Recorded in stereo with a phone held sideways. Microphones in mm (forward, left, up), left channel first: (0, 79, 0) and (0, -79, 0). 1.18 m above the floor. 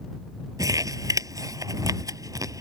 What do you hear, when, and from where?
0.6 s crumpling: 20° right (ahead or behind)